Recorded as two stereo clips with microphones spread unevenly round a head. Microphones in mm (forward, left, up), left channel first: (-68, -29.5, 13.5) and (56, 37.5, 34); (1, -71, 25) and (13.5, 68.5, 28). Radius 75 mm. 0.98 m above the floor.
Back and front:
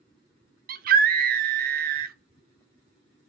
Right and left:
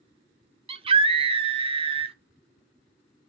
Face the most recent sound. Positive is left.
turn(degrees=40)